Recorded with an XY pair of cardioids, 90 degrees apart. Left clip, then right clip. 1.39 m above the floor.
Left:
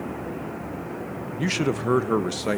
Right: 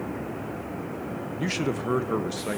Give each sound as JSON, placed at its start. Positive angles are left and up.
{"t": 1.4, "sound": "a man speaking", "azimuth_deg": 25, "distance_m": 1.2}